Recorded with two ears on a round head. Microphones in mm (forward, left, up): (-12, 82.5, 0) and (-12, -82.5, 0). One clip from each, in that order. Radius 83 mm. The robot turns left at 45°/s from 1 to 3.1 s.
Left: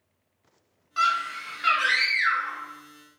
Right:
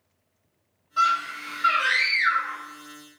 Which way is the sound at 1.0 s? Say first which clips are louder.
Right 2 dB; 120° left.